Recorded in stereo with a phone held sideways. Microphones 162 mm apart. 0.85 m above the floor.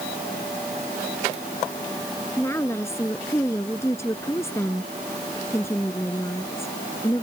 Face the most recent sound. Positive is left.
turn(degrees=15)  # may be behind; listen again after turning